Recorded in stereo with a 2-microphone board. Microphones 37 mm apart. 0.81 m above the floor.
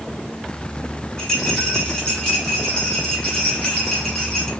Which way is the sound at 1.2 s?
25° left (ahead or behind).